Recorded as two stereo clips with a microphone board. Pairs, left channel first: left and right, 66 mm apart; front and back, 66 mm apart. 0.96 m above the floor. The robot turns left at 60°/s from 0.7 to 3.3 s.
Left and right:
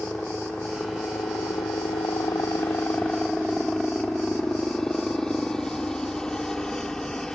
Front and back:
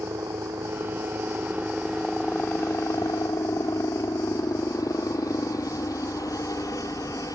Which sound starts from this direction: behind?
A helicopter, at 0.0 s.